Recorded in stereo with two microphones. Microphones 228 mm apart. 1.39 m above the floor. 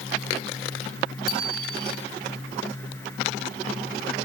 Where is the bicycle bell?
80° right, 5.5 m.